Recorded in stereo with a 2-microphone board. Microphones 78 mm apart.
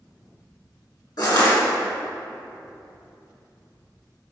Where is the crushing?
60° left (ahead or behind), 2.0 m.